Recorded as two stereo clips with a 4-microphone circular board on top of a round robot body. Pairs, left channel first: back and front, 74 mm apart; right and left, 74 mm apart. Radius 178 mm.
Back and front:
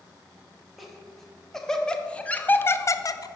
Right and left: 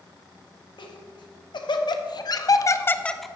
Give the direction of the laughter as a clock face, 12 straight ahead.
3 o'clock.